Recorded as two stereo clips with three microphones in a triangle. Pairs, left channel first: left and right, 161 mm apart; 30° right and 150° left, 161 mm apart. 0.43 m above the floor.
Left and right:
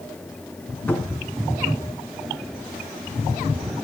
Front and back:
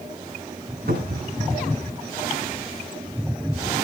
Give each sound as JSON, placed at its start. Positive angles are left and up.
{"t": 0.9, "sound": "a cupboard door", "azimuth_deg": 170, "distance_m": 2.5}